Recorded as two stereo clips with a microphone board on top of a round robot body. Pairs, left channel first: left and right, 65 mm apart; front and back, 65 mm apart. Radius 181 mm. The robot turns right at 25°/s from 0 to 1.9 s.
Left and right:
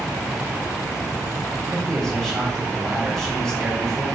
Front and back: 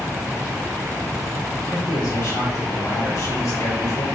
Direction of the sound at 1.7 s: Straight ahead.